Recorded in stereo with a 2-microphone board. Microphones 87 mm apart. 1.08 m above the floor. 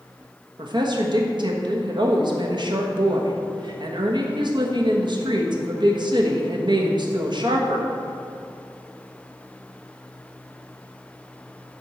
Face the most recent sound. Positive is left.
turn(degrees=-60)  # may be behind; listen again after turning